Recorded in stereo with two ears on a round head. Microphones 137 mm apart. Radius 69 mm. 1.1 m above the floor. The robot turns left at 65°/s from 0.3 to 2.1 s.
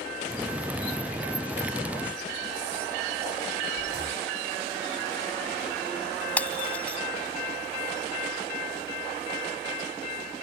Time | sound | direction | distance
3.8 | breathing | 15° right (ahead or behind) | ?
6.4 | breaking glass | 10° left (ahead or behind) | ?